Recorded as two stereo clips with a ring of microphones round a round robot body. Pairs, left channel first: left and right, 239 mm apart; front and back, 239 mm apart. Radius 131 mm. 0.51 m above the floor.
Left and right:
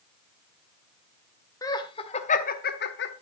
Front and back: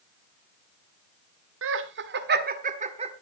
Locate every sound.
1.6 s laughter: 165° left, 1.5 m; by 3.1 s 115° left, 1.5 m